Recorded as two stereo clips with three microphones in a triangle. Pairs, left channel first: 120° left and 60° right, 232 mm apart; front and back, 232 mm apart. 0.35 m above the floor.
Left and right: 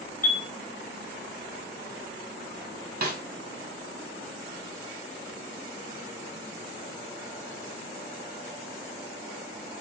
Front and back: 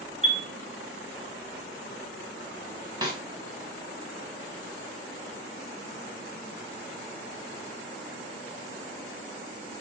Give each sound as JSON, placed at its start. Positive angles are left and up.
{"t": 0.2, "sound": "a chime", "azimuth_deg": 170, "distance_m": 2.5}
{"t": 3.0, "sound": "a snare drum", "azimuth_deg": -110, "distance_m": 1.3}